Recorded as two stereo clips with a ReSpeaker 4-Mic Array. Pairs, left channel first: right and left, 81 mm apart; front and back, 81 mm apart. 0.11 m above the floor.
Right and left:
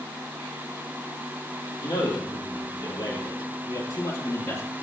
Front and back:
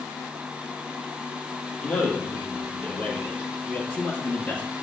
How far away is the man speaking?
About 4 m.